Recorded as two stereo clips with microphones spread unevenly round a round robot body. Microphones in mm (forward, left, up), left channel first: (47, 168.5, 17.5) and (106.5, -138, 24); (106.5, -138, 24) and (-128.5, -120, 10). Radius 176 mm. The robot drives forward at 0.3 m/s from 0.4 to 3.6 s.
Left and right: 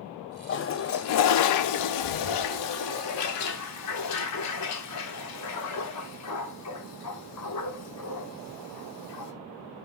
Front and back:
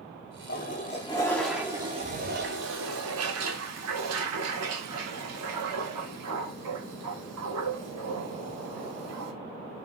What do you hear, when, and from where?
0.5 s a toilet flushing: 50° left, 0.6 m; by 9.3 s 145° left, 0.8 m